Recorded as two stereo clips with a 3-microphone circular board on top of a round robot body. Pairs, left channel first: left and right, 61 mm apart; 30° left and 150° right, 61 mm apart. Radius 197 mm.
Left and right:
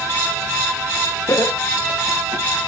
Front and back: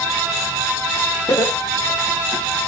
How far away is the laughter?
About 2.5 m.